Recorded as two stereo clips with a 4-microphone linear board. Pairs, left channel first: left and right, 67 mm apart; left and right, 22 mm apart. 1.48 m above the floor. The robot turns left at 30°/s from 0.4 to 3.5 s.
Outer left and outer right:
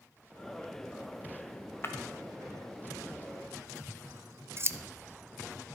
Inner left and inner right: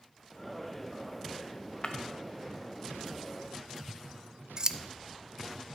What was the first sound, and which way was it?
Breaking glass, 40° left (ahead or behind).